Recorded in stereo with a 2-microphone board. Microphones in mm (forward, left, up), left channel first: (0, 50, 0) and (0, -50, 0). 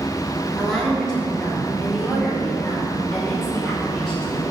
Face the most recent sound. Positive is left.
turn(degrees=5)  # may be behind; listen again after turning